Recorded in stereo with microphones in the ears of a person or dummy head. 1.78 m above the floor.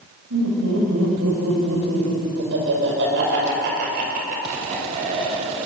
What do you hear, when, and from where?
0.3 s laughter: 75° right (ahead or behind), 7.5 m; by 5.7 s 30° right (ahead or behind), 7 m